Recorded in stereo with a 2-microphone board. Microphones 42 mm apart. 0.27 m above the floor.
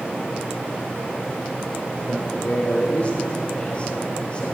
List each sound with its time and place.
2.1 s a man speaking: 40° left (ahead or behind), 3.5 m; by 4.5 s 25° left (ahead or behind), 6 m